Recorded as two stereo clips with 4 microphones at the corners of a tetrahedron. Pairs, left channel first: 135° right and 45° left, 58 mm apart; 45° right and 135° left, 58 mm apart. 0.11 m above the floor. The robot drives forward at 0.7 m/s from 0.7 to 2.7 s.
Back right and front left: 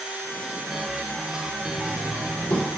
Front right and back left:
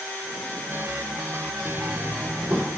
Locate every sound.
1.6 s knocking: 175° right, 3 m